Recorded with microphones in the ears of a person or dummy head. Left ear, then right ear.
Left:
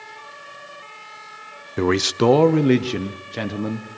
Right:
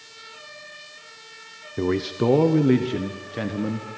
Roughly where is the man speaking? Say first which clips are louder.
Left 5 dB; left.